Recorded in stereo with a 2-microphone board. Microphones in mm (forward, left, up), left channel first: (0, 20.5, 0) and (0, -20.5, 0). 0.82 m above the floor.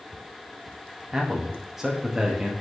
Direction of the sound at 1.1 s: 10° right (ahead or behind).